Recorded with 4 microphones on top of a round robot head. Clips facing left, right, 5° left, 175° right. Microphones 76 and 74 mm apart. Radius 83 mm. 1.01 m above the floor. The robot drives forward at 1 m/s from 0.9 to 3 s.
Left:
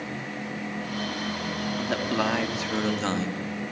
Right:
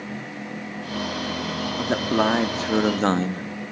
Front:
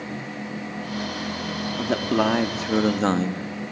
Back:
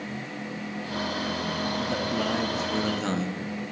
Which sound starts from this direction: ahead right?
A man speaking, at 1.8 s.